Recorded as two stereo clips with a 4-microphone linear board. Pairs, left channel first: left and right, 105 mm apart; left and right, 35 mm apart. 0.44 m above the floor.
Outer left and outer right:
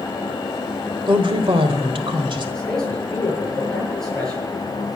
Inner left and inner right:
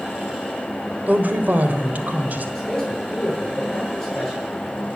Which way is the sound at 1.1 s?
50° right (ahead or behind).